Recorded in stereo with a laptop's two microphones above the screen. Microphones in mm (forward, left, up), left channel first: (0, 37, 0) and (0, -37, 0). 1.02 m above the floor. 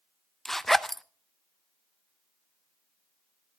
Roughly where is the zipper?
Centre.